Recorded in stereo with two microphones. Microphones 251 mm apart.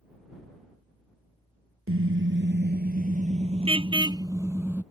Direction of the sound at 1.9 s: 55° right (ahead or behind).